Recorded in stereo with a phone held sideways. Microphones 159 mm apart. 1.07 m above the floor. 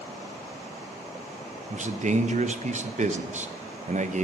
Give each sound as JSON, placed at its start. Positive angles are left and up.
{"t": 1.7, "sound": "a man speaking", "side_deg": -50, "distance_m": 0.7}